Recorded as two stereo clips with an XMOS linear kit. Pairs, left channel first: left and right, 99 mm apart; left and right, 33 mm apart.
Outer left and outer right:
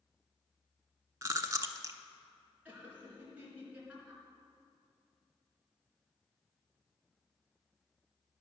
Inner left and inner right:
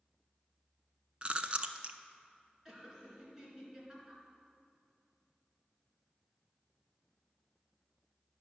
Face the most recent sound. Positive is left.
turn(degrees=-15)  # may be behind; listen again after turning